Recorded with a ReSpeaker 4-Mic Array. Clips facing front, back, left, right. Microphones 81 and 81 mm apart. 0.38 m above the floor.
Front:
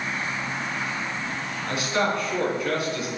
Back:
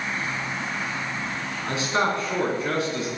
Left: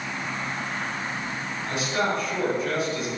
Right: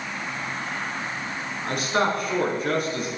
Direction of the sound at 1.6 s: 120° right.